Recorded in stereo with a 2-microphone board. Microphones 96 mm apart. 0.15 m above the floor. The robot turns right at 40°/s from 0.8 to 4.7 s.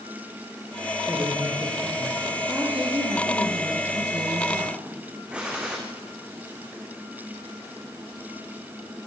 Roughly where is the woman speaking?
Behind.